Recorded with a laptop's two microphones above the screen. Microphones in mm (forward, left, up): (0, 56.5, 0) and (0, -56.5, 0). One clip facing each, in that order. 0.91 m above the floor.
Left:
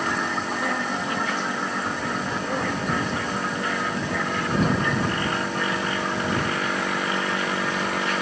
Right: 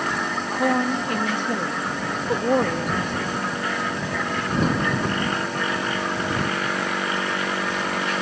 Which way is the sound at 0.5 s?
55° right (ahead or behind).